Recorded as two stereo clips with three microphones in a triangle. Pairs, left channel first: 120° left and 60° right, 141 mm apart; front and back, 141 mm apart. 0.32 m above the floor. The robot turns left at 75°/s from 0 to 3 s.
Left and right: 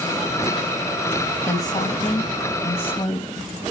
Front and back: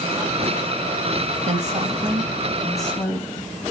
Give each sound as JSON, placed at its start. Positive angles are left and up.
{"t": 1.5, "sound": "a woman speaking", "azimuth_deg": -175, "distance_m": 1.9}